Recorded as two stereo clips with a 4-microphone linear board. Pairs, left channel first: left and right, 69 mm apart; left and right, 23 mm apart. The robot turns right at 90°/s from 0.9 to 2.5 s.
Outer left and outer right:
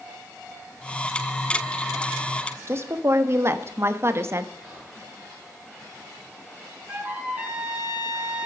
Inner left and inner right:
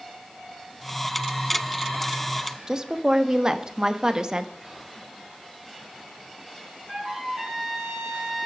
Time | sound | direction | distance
2.7 | a woman speaking | 35° right (ahead or behind) | 1.0 m
4.6 | whispering | 5° right (ahead or behind) | 7.5 m
6.9 | a trumpet | 20° right (ahead or behind) | 4 m